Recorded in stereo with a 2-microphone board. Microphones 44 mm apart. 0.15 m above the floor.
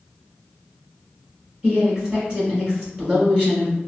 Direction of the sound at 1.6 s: 25° right (ahead or behind).